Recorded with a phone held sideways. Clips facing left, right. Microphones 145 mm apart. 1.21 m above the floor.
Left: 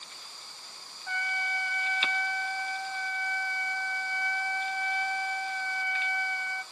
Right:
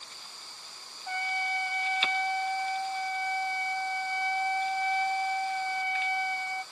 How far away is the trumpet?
About 0.6 m.